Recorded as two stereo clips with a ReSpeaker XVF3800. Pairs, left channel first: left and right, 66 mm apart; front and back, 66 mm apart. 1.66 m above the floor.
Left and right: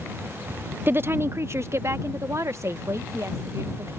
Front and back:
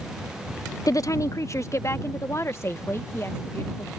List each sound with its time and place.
0.9 s a woman speaking: 30° right; by 3.9 s 50° right